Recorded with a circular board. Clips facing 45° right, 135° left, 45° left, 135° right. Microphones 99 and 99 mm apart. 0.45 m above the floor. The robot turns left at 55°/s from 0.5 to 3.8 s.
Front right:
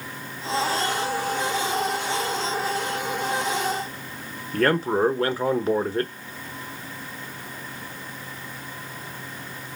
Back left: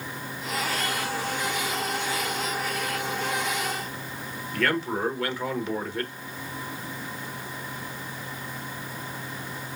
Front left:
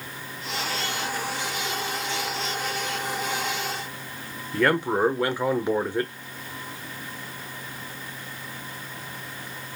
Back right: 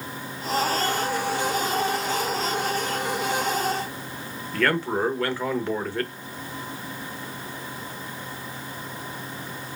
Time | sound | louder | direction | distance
4.5 | a man speaking | front right 6 dB, front left 2 dB | 20° right | 1.0 m